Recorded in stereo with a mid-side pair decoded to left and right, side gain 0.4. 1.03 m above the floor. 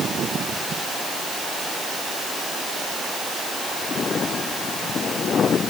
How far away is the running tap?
No running tap in this recording.